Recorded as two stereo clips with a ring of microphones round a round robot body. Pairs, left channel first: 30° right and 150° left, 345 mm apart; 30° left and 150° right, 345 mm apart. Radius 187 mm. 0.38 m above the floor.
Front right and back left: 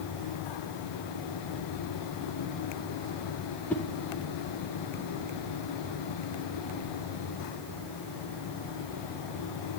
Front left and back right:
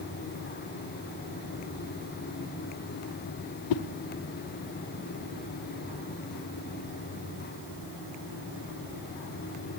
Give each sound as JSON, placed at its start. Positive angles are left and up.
{"t": 3.7, "sound": "a whoosh", "azimuth_deg": 55, "distance_m": 0.6}